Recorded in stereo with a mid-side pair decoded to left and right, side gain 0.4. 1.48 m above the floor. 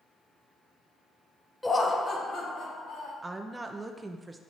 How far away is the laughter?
About 0.6 m.